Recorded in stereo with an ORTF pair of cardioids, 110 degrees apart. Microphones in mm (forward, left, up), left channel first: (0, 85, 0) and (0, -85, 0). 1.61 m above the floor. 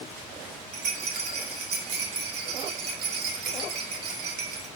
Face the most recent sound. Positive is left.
turn(degrees=-70)